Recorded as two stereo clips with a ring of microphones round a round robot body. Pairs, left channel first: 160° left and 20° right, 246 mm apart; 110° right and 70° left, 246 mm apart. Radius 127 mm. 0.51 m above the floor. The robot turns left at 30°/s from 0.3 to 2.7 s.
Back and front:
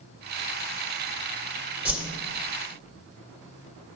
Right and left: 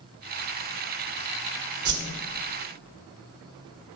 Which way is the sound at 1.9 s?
60° left.